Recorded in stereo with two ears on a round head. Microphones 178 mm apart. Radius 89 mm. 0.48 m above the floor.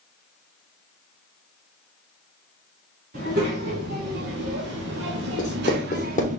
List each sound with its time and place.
3.1 s a child speaking: 50° right (ahead or behind), 2 m; by 6.4 s 40° right (ahead or behind), 0.9 m
5.4 s writing: 40° left (ahead or behind), 1.0 m